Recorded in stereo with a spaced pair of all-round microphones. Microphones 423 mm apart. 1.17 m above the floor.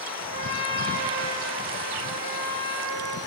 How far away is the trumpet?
About 2.5 m.